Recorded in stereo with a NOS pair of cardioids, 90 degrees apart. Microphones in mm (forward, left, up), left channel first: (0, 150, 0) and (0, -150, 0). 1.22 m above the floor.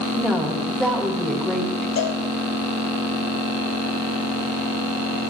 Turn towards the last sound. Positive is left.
turn(degrees=60)